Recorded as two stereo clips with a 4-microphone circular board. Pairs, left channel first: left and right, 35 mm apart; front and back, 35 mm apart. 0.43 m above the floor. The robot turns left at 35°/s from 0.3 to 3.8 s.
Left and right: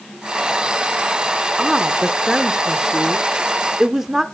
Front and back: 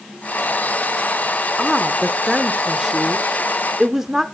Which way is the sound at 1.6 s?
55° right.